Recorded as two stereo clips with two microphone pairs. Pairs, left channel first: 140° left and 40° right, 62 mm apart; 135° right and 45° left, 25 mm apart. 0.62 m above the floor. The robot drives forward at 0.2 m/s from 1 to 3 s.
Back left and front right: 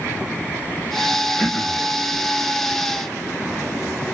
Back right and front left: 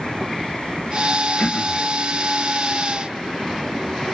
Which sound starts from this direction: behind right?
Throat clearing, at 1.4 s.